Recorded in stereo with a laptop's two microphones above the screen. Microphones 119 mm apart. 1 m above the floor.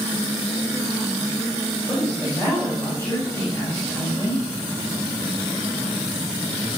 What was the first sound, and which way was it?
A woman speaking, 20° left (ahead or behind).